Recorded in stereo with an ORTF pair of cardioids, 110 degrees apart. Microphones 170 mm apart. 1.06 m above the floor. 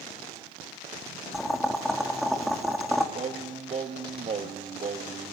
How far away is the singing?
About 1.2 m.